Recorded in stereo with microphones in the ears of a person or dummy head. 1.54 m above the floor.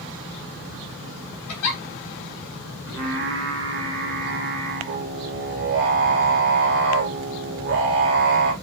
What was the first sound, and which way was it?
A giggle, 85° left.